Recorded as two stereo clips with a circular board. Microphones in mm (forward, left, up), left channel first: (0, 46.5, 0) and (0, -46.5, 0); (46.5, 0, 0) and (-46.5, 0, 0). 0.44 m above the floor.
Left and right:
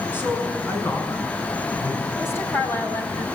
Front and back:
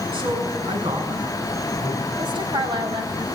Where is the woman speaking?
155° left, 4 m.